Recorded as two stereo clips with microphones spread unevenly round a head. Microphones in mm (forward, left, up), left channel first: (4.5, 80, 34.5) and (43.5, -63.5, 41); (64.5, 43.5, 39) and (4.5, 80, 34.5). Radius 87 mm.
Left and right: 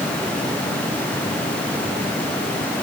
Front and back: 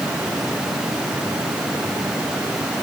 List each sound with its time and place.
Only background noise.